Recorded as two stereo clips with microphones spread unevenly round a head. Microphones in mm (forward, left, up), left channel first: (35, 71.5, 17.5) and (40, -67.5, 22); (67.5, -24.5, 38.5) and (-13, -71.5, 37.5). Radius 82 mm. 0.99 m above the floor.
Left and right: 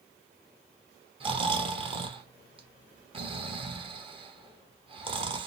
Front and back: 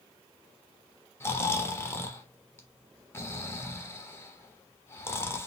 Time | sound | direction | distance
1.2 | snoring | 35° right | 1.3 m